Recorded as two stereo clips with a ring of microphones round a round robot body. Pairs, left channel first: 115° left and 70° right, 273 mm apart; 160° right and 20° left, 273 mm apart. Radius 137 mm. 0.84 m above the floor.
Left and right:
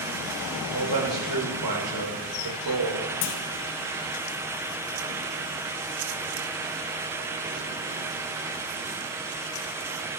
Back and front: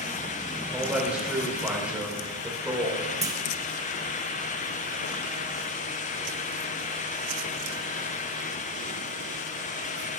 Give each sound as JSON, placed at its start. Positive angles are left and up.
{"t": 0.7, "sound": "a man speaking", "azimuth_deg": -65, "distance_m": 3.0}
{"t": 3.2, "sound": "a clunk", "azimuth_deg": 100, "distance_m": 1.1}